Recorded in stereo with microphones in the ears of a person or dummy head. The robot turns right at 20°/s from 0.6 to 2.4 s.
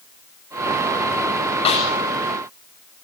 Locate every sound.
1.6 s a snare drum: 35° left (ahead or behind), 8 m; by 1.9 s 30° left (ahead or behind), 8 m